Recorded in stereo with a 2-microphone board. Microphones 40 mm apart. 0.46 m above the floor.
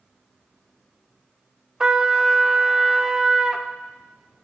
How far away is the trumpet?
About 0.5 m.